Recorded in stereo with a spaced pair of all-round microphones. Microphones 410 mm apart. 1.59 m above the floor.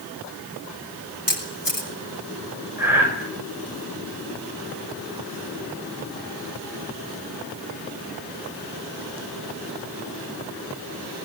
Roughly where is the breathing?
Centre.